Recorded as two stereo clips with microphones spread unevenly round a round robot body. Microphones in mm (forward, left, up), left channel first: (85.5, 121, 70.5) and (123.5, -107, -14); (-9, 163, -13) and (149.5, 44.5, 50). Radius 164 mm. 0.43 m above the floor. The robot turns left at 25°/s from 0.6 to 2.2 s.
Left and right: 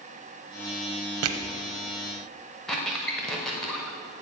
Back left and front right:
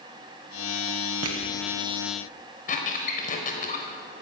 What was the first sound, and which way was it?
Crushing, 75° right.